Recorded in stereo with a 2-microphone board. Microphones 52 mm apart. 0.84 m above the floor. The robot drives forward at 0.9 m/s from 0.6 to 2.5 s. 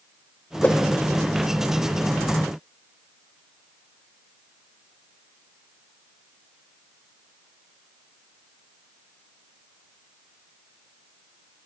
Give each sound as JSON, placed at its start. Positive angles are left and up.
{"t": 0.6, "sound": "a whoosh", "side_deg": 25, "distance_m": 0.6}